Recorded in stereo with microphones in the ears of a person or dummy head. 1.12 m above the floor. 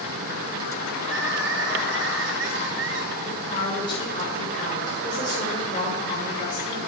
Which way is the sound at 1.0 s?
55° right (ahead or behind).